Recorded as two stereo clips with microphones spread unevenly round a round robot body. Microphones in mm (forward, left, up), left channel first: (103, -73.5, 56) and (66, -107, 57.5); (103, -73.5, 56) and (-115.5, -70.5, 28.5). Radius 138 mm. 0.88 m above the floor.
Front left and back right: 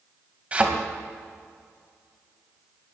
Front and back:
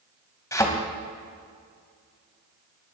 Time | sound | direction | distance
0.5 | a thud | 75° right | 3 m